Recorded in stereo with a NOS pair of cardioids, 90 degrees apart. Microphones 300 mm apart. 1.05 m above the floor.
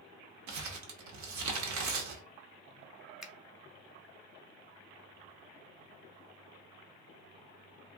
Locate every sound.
0.5 s crumpling: 70° right, 1.0 m
3.2 s a finger snap: straight ahead, 0.8 m